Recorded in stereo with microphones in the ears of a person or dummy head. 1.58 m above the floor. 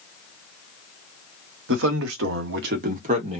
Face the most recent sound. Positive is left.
turn(degrees=-35)  # may be behind; listen again after turning